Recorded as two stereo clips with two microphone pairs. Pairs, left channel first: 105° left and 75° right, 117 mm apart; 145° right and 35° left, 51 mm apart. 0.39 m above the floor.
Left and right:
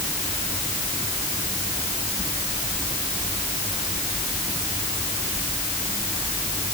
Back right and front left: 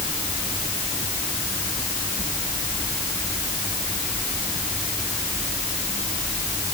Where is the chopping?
I don't hear chopping.